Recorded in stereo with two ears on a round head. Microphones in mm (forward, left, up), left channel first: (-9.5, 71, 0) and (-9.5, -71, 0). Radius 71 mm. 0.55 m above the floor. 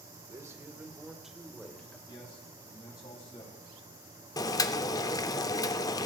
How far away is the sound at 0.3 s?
About 1.3 m.